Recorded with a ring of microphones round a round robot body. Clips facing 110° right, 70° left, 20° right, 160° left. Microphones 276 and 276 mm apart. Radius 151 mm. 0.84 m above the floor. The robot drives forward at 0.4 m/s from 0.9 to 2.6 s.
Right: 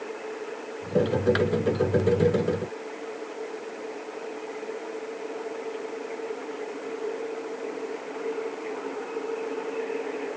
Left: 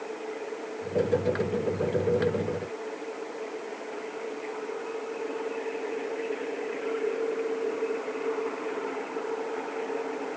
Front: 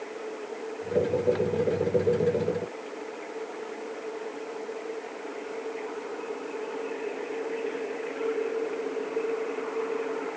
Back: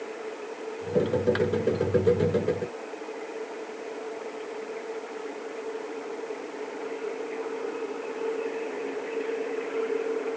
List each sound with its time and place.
Only background noise.